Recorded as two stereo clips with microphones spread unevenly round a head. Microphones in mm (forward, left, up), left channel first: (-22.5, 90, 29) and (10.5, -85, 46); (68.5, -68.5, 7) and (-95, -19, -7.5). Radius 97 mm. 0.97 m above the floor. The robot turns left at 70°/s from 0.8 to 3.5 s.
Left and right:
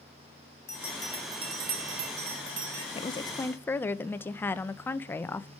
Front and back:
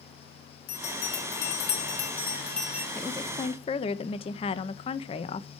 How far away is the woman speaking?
About 0.8 m.